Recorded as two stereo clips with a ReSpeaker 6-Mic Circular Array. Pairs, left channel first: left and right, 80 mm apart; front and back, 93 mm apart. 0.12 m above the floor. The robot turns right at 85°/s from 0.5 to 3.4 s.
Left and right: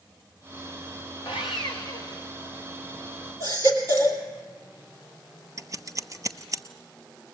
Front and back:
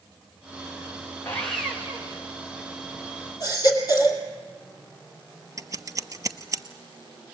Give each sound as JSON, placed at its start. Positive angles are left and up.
{"t": 1.2, "sound": "sawing", "azimuth_deg": 65, "distance_m": 3.0}
{"t": 3.4, "sound": "a baby crying", "azimuth_deg": -45, "distance_m": 3.0}
{"t": 5.6, "sound": "scissors", "azimuth_deg": -130, "distance_m": 0.8}